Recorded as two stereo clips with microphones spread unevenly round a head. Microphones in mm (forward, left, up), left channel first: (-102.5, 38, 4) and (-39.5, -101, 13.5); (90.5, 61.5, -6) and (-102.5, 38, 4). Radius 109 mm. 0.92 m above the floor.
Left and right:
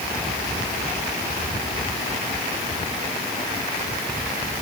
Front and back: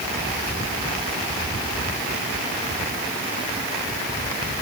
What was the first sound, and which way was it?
Only background noise.